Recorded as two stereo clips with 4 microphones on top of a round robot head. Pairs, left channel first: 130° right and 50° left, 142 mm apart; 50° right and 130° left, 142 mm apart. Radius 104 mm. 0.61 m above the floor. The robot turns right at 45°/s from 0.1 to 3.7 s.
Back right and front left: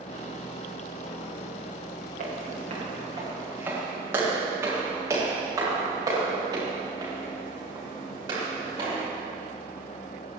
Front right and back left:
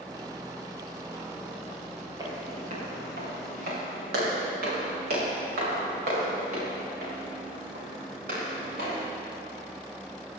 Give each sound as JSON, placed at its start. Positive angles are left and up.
{"t": 2.2, "sound": "footsteps", "azimuth_deg": 70, "distance_m": 6.5}